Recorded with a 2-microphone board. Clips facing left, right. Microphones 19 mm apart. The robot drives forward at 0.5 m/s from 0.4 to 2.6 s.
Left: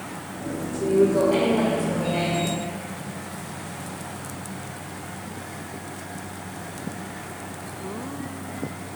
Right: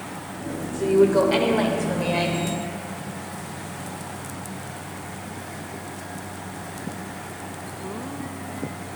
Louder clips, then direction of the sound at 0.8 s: Right 2 dB; 50° right (ahead or behind).